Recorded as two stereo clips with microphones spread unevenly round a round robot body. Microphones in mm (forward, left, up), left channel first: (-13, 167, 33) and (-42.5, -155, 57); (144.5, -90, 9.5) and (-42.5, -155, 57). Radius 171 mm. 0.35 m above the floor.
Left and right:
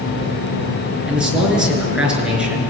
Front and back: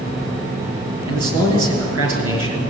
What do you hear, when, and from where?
1.1 s a man speaking: 175° left, 5.5 m